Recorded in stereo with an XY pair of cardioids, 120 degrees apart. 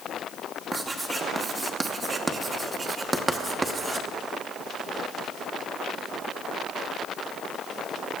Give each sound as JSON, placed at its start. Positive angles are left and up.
{"t": 0.7, "sound": "writing", "azimuth_deg": -25, "distance_m": 1.0}